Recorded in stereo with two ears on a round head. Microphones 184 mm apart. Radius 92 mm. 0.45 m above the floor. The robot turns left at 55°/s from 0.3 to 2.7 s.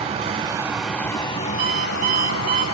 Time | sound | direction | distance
0.0 | running water | 150° right | 1.0 m
1.6 | an alarm clock | 65° right | 8.5 m